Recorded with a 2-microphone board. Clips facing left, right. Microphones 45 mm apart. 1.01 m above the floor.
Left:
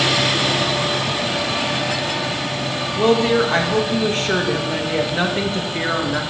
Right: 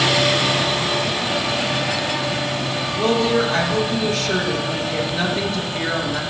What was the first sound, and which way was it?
A woman speaking, 35° left (ahead or behind).